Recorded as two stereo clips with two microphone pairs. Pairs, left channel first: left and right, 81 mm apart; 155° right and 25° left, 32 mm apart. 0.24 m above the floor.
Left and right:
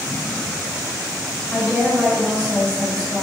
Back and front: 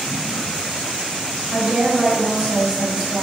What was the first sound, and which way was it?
A woman speaking, 25° left.